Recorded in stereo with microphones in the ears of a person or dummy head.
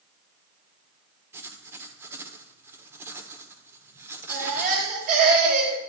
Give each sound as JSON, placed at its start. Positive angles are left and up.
{"t": 1.3, "sound": "writing", "side_deg": -10, "distance_m": 1.1}
{"t": 4.3, "sound": "a baby crying", "side_deg": -45, "distance_m": 3.5}